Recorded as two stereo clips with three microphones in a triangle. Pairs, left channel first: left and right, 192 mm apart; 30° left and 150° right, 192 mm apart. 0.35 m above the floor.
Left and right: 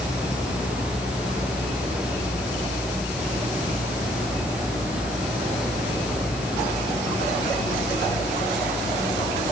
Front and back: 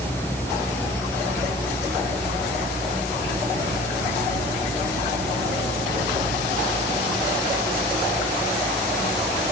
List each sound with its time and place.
Only background noise.